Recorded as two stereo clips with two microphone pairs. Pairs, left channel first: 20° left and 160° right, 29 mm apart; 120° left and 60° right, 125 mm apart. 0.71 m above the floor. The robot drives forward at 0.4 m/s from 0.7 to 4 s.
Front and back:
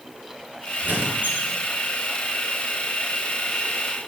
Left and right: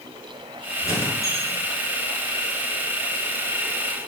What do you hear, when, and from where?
0.8 s a squeak: 175° right, 7 m